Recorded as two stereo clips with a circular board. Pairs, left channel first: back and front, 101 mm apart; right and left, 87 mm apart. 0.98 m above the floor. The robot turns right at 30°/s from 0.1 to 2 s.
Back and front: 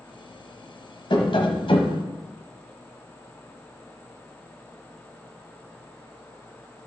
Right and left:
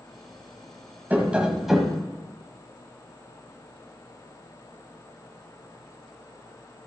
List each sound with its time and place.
1.1 s tapping: 160° left, 1.4 m; by 2.0 s 175° right, 1.4 m